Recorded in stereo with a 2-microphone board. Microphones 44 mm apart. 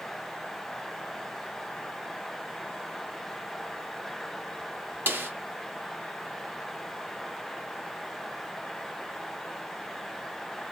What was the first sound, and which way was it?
A snare drum, 45° right (ahead or behind).